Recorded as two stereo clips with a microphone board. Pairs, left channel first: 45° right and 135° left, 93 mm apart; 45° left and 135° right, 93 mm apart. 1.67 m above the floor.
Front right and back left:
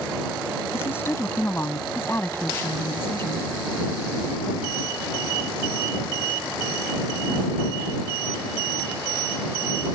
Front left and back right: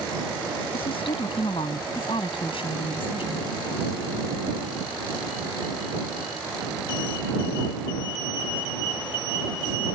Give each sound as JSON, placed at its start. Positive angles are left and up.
{"t": 0.7, "sound": "a woman speaking", "azimuth_deg": 20}